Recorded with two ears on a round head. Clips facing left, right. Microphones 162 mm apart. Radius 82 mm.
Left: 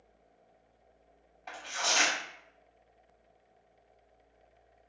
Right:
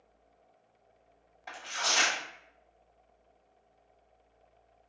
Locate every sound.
1.5 s tearing paper: 5° right (ahead or behind), 0.8 m